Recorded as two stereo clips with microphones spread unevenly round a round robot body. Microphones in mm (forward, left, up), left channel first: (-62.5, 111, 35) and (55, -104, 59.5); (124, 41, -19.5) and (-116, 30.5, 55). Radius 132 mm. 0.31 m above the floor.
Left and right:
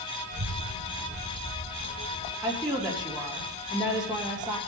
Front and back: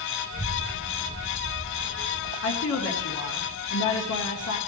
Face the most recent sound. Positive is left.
turn(degrees=35)